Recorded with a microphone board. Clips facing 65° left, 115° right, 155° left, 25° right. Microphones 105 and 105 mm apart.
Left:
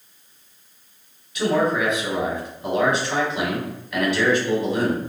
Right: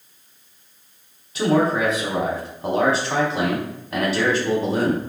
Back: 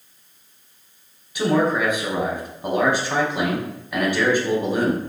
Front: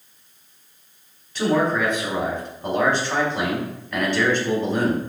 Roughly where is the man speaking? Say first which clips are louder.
Right 2 dB, back 1 dB; behind right.